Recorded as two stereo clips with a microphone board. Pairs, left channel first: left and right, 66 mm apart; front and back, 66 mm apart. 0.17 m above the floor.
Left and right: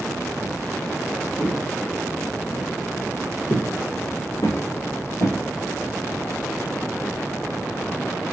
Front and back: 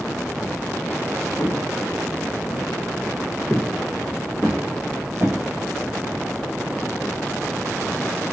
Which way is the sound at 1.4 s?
20° left.